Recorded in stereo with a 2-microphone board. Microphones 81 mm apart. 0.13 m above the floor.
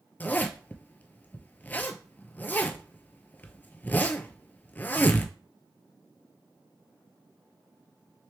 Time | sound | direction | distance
0.2 | a zipper | 20° left (ahead or behind) | 0.6 m